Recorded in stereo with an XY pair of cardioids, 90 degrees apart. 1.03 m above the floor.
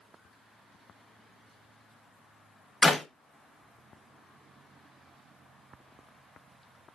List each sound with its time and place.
2.8 s a clap: 35° left, 1.0 m